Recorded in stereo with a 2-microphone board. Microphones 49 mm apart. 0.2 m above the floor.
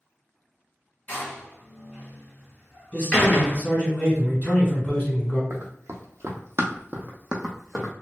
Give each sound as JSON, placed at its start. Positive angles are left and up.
{"t": 1.1, "sound": "a door slam", "side_deg": 30, "distance_m": 1.4}
{"t": 2.9, "sound": "a man speaking", "side_deg": 35, "distance_m": 1.6}
{"t": 5.5, "sound": "running footsteps", "side_deg": -75, "distance_m": 0.8}